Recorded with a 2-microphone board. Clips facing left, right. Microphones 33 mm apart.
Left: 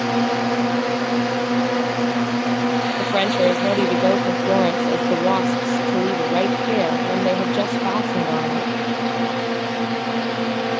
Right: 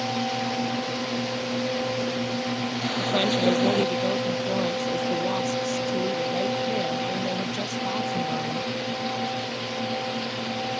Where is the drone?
65° left (ahead or behind); by 10.8 s 85° left.